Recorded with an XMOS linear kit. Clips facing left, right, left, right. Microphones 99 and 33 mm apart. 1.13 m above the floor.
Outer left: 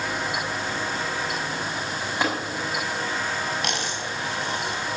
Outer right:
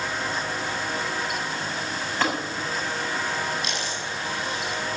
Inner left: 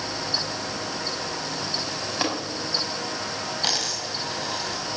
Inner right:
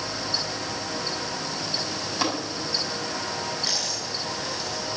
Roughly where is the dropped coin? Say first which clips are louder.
Outer left 2 dB, inner left 2 dB; left.